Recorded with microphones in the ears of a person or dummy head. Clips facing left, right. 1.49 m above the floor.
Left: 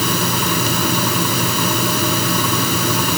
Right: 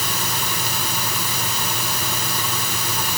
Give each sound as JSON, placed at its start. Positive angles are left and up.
{"t": 0.0, "sound": "a fan", "side_deg": 60}